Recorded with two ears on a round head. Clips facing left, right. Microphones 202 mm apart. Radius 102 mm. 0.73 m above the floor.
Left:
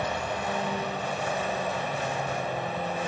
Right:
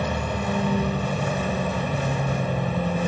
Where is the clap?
I don't hear a clap.